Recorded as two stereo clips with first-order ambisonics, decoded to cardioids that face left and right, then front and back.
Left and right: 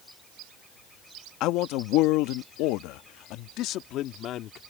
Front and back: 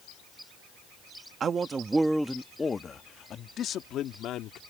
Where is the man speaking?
120° left; by 4.6 s 40° left.